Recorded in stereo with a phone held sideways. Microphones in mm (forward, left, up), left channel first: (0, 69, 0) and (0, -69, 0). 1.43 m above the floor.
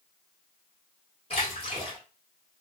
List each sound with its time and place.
1.3 s a splash: 45° left (ahead or behind), 1.9 m